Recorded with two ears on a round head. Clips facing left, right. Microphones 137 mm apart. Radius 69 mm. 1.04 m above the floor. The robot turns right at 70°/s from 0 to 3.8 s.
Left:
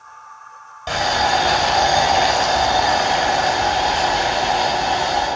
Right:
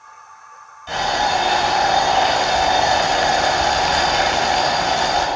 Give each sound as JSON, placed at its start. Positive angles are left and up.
{"t": 0.9, "sound": "boiling", "azimuth_deg": 70, "distance_m": 2.5}